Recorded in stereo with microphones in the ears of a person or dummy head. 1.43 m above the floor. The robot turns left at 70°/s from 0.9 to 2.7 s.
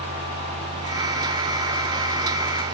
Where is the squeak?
I don't hear a squeak.